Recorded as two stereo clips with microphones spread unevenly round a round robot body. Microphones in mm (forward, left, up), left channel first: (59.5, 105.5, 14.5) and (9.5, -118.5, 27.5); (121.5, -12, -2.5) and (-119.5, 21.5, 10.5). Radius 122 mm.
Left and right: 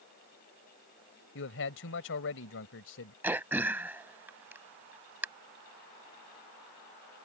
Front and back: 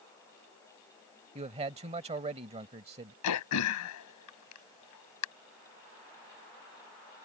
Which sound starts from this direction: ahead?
Throat clearing, at 3.2 s.